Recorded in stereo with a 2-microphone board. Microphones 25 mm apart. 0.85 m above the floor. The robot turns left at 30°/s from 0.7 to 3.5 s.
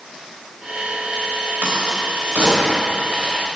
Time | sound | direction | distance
1.6 | a crack | 65° right (ahead or behind) | 4.5 m